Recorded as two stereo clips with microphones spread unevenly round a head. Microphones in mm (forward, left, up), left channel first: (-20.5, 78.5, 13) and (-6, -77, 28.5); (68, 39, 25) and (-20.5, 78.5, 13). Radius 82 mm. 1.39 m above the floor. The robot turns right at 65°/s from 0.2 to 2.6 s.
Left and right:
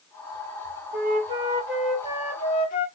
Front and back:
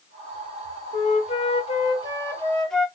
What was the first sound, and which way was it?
A flute, 50° right.